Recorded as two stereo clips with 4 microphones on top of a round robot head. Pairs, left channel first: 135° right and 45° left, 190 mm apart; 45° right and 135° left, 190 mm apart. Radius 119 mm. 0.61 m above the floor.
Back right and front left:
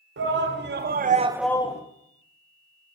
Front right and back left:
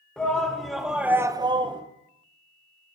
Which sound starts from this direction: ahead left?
A shout, at 0.2 s.